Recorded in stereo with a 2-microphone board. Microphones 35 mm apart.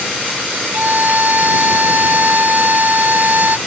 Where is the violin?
60° right (ahead or behind).